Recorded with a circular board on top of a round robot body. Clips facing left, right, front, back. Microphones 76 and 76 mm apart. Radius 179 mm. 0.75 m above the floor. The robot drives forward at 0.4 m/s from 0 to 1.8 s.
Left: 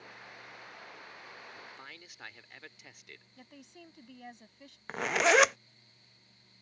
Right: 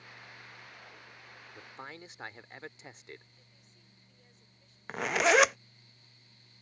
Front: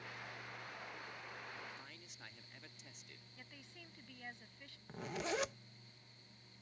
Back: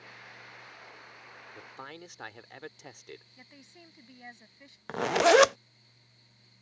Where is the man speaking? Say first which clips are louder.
Right 3 dB, back 7 dB; 150° right.